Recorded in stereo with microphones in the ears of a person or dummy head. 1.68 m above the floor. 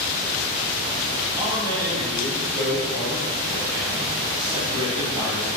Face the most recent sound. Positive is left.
turn(degrees=-20)  # may be behind; listen again after turning